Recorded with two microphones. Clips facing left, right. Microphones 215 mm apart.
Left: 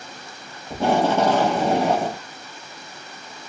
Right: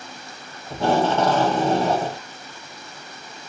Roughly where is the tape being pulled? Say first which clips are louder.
Left 1 dB; centre.